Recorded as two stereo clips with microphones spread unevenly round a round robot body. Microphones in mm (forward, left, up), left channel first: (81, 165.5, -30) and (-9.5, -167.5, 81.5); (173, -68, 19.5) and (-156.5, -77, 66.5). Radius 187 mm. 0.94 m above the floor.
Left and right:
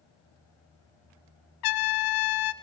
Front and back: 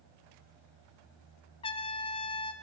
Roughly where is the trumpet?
Left.